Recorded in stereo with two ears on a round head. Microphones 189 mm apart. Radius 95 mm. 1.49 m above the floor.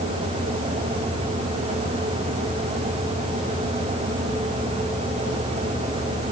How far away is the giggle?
No giggle in this recording.